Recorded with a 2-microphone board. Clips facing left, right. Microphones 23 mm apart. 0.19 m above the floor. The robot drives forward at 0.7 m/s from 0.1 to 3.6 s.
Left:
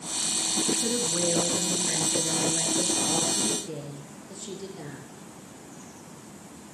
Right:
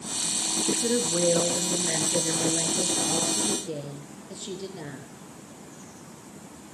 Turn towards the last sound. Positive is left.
turn(degrees=-20)  # may be behind; listen again after turning